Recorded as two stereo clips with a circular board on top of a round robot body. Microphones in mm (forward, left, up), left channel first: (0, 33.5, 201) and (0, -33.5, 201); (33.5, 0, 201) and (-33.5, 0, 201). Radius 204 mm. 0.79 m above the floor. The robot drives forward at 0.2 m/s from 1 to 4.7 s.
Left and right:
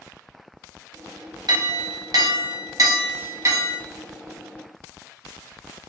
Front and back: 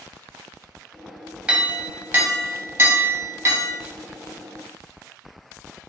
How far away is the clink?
About 0.6 m.